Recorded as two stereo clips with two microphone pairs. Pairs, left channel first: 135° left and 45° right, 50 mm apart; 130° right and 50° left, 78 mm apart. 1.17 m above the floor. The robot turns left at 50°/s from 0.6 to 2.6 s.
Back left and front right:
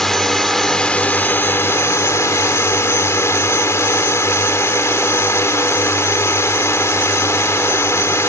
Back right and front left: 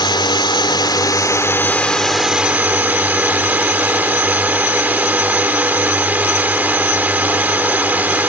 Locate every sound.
0.0 s a drone: 140° right; by 8.3 s 120° left